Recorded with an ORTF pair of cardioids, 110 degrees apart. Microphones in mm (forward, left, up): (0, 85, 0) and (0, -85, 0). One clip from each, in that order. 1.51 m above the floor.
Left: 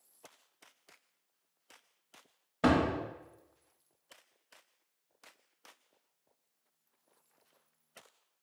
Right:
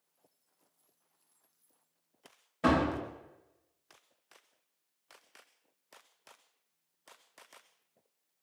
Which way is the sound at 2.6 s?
30° left.